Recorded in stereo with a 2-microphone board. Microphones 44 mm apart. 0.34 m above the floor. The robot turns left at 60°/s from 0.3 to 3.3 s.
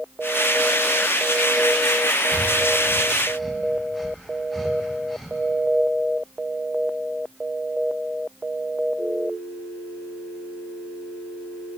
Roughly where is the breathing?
Right.